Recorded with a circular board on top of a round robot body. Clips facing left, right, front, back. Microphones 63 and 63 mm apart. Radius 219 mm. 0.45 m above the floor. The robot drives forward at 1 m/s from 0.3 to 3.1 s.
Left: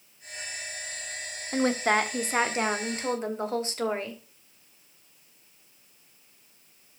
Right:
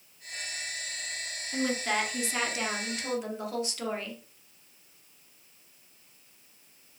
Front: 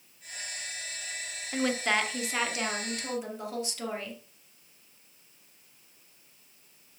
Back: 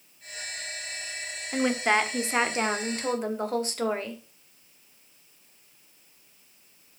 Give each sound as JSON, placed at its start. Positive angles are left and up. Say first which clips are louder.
{"t": 1.5, "sound": "a woman speaking", "louder": "left 5 dB, back 4 dB", "azimuth_deg": 100, "distance_m": 2.0}